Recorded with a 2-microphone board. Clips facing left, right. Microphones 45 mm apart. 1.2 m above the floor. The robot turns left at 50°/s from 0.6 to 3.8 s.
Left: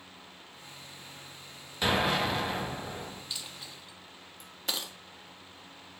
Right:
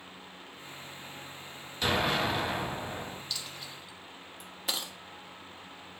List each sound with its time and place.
1.8 s an explosion: 25° left, 1.5 m; by 3.2 s 45° right, 1.5 m
3.3 s a dropped coin: 20° left (ahead or behind), 0.8 m; by 4.9 s centre (ahead or behind), 0.8 m